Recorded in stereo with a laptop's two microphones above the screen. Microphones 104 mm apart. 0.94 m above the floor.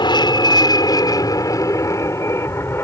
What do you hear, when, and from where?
0.0 s an aircraft: 45° left (ahead or behind); by 2.9 s 20° left (ahead or behind)